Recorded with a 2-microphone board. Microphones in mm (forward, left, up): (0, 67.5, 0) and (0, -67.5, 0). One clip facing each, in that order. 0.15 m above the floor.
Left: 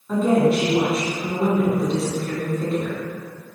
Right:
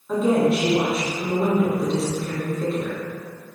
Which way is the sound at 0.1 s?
Centre (ahead or behind).